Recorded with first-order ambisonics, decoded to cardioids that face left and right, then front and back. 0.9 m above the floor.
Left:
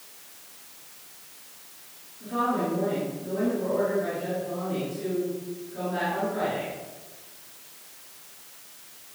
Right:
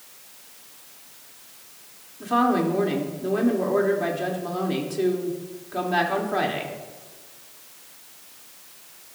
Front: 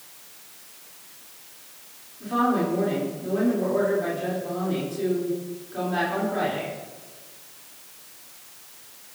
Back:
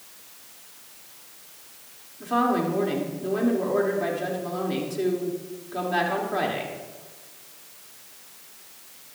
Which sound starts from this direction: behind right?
A woman speaking, at 2.2 s.